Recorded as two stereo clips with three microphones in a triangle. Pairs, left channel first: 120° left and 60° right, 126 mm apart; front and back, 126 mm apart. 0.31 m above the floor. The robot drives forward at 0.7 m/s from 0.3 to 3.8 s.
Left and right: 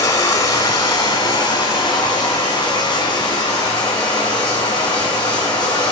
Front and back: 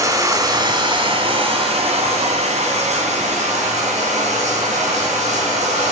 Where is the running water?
155° left, 1.3 m; by 5.9 s 175° left, 3.5 m.